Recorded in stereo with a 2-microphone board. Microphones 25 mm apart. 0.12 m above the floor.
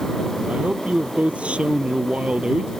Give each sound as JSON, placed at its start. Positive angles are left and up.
{"t": 0.5, "sound": "a man speaking", "side_deg": -70}